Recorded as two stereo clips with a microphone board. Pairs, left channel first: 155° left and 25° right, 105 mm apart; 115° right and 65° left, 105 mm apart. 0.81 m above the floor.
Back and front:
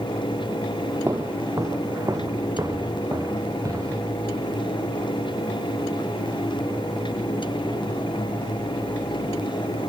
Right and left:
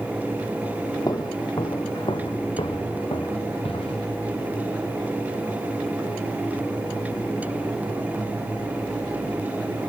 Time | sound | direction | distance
1.1 | footsteps | 75° right | 1.1 m